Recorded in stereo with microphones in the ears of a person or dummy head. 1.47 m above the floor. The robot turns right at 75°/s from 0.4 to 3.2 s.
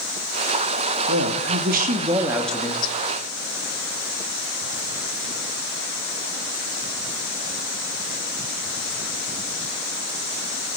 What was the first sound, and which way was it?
A woman speaking, 100° right.